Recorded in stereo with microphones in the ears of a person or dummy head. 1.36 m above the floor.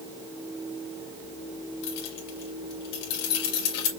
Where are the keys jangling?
70° left (ahead or behind), 1.5 m.